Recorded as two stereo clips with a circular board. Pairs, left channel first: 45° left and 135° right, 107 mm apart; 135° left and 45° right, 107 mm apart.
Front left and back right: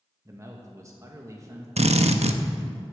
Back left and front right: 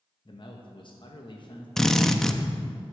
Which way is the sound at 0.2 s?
165° left.